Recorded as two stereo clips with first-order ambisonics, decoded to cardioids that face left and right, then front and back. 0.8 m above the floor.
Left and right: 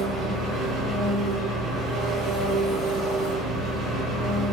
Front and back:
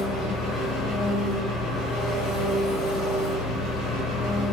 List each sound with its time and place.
0.0 s an engine running: 25° right, 1.7 m